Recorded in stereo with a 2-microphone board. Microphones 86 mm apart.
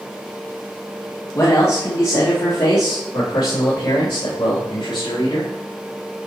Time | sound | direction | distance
1.4 | a man speaking | 35° left (ahead or behind) | 2 m